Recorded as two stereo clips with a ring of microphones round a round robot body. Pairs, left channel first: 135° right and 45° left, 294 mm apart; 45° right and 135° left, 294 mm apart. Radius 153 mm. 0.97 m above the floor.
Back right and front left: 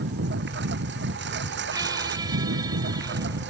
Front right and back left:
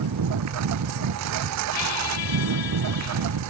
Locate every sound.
0.0 s a lawn mower: 100° left
1.7 s a squeak: 35° right